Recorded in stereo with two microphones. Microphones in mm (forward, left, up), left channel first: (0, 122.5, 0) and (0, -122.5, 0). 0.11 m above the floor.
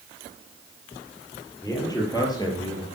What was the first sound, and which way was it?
A man speaking, 15° left (ahead or behind).